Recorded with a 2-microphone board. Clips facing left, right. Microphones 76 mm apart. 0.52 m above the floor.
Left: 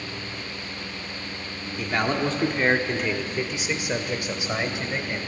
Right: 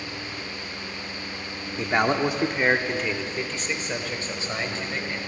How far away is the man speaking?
About 1.2 m.